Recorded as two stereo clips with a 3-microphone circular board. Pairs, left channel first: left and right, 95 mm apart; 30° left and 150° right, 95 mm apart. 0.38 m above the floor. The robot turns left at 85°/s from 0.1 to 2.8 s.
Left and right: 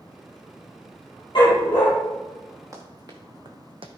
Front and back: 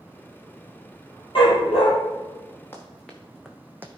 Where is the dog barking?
55° left, 3.5 m; by 1.9 s 10° left, 3.5 m.